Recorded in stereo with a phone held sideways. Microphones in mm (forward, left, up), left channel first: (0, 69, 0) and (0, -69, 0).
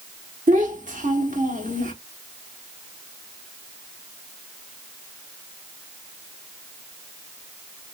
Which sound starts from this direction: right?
A child speaking, at 0.5 s.